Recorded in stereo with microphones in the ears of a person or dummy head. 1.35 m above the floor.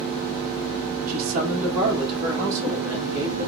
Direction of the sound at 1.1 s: 50° right (ahead or behind).